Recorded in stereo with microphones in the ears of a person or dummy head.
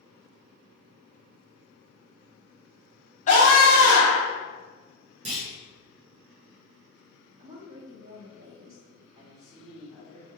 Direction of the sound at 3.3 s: 35° left (ahead or behind).